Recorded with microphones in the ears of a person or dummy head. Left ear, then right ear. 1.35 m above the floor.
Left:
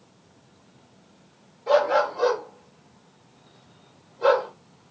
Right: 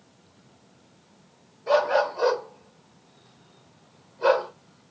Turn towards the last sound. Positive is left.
turn(degrees=5)  # may be behind; listen again after turning